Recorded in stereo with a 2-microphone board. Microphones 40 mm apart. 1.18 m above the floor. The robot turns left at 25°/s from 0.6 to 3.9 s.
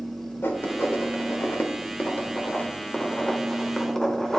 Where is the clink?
No clink in this recording.